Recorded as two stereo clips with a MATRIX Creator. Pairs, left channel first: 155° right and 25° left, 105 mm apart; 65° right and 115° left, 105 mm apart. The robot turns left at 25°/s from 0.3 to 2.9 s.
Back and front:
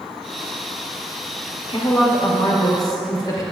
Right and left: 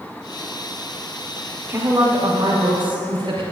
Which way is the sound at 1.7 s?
Straight behind.